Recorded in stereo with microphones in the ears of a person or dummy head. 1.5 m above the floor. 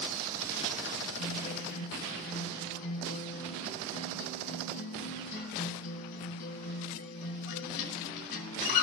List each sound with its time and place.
1.2 s a guitar: 55° left (ahead or behind), 3 m